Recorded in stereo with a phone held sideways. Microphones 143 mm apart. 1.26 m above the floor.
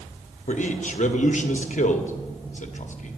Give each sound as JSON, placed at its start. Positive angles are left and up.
{"t": 0.5, "sound": "a man speaking", "side_deg": 60, "distance_m": 1.0}